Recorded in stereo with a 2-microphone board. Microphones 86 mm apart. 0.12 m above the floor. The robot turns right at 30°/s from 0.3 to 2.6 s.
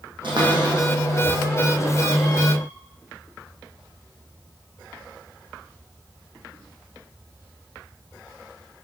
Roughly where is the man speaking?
No man speaking in this recording.